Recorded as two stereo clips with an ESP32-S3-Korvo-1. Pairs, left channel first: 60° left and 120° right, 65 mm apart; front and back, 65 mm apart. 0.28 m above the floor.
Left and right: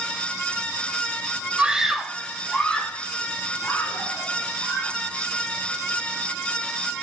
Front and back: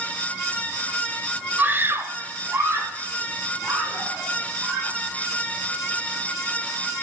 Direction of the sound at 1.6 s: 170° right.